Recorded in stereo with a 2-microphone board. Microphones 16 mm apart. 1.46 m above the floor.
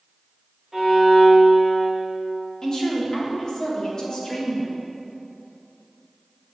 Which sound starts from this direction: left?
A woman speaking, at 2.6 s.